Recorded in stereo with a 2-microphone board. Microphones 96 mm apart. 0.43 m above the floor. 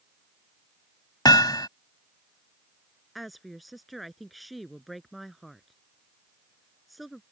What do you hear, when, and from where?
1.2 s hammering: 45° left (ahead or behind)
3.1 s a woman speaking: centre (ahead or behind)